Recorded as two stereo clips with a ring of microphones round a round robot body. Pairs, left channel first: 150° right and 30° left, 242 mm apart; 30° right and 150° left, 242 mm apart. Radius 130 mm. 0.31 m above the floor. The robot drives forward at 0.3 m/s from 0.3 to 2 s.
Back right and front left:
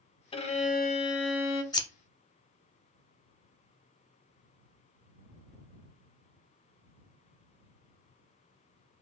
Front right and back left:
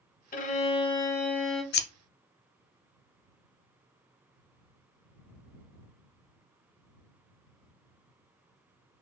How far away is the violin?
About 0.6 m.